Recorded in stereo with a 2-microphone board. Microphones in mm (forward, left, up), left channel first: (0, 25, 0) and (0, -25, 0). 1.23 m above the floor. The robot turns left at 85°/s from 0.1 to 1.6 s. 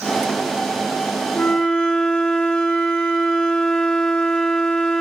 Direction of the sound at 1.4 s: 35° left (ahead or behind).